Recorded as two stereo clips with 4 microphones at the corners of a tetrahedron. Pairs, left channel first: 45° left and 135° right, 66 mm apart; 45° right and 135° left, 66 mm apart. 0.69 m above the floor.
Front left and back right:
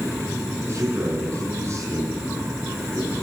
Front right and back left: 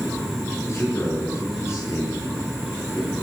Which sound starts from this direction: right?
A man speaking, at 0.6 s.